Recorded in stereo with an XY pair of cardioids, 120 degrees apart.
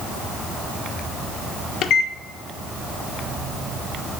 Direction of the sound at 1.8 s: 60° left.